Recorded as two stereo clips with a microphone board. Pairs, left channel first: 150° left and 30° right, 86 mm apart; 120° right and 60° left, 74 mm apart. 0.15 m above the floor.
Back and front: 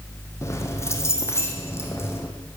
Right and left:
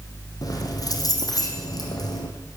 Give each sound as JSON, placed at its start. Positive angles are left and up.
{"t": 0.4, "sound": "keys jangling", "azimuth_deg": -155, "distance_m": 4.0}